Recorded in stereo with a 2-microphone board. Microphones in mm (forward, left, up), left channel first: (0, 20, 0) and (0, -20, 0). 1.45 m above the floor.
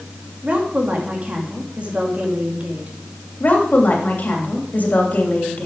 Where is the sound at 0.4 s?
35° right (ahead or behind), 2.5 m.